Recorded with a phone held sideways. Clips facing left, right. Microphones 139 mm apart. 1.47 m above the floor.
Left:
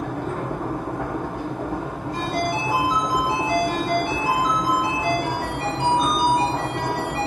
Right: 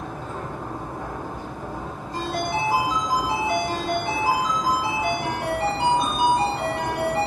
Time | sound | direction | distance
0.0 | a machine running | 75° left (ahead or behind) | 0.8 m
2.1 | a ringtone | 30° right (ahead or behind) | 2.5 m